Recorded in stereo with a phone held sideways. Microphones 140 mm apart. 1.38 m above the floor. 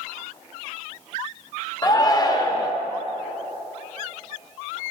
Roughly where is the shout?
Left.